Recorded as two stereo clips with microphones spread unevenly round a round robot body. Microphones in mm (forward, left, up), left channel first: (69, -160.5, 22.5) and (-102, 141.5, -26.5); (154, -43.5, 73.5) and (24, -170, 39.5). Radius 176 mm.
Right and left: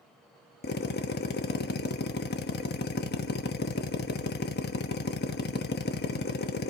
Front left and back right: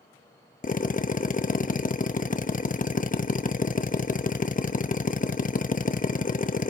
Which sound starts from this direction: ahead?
A drill, at 0.6 s.